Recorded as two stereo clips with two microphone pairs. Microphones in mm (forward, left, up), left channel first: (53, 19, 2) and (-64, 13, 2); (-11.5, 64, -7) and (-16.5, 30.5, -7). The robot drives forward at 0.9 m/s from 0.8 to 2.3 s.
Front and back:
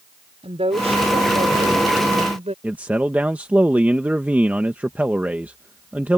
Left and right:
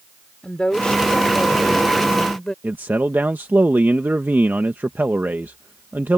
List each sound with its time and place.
0.4 s a woman speaking: 150° left; by 2.5 s 155° left
2.6 s a man speaking: 100° right